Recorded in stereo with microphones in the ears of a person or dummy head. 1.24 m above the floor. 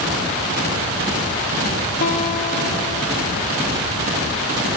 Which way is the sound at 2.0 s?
45° left (ahead or behind).